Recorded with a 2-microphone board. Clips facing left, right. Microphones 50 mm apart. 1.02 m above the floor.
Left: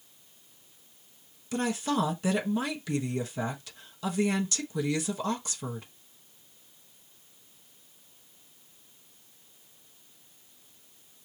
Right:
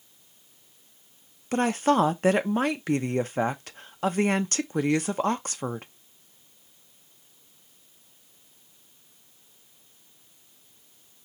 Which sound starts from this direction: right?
A woman speaking, at 1.5 s.